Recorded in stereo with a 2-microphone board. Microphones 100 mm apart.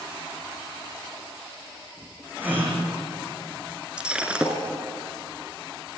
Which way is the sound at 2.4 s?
20° right (ahead or behind).